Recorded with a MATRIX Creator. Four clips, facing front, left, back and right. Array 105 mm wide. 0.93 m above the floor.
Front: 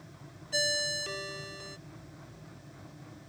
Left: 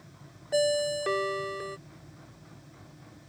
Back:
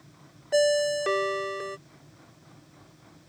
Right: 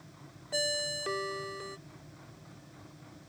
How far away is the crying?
I don't hear crying.